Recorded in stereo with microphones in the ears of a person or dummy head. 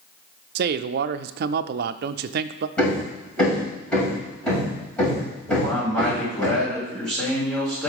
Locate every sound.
0.6 s a man speaking: 60° right (ahead or behind), 0.5 m
2.8 s hammering: 5° left (ahead or behind), 6 m
5.5 s a man speaking: centre (ahead or behind), 6 m